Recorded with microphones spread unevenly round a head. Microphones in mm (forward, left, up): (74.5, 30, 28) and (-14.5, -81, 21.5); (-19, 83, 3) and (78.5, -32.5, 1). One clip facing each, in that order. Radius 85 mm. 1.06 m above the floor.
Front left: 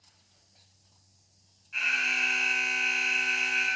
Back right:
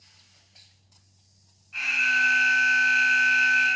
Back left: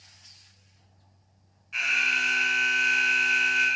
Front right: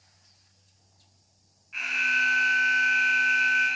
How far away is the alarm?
About 3.5 m.